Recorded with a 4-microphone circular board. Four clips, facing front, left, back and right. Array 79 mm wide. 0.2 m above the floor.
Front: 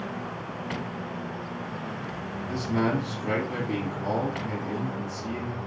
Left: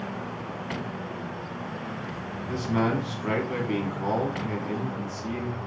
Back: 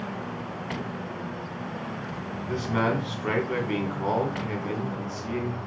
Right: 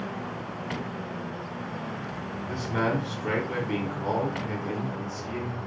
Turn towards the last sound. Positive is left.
turn(degrees=165)